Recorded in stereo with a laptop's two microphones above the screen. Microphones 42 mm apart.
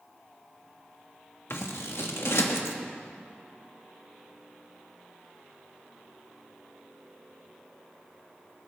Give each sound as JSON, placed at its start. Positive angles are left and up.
{"t": 1.5, "sound": "scissors", "side_deg": 80, "distance_m": 1.1}